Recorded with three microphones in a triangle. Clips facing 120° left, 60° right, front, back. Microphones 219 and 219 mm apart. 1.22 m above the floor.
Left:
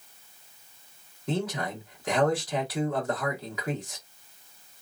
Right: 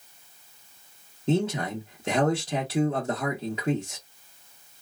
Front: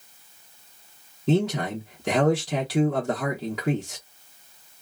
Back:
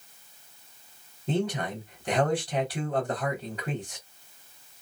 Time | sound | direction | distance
1.3 | a man speaking | straight ahead | 1.0 m